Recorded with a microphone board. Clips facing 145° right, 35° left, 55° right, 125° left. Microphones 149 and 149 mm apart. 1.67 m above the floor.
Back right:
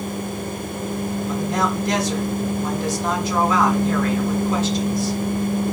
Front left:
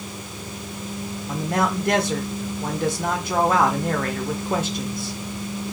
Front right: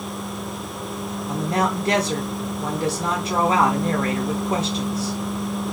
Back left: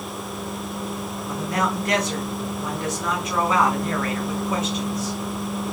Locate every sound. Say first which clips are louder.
1.3 s a man speaking: front left 1 dB, front right 2 dB; straight ahead, 1.2 m